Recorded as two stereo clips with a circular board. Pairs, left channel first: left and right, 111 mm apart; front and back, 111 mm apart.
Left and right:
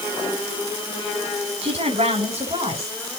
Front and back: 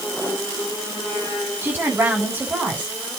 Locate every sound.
1.6 s a woman speaking: 110° right, 8 m; by 3.0 s 105° right, 8 m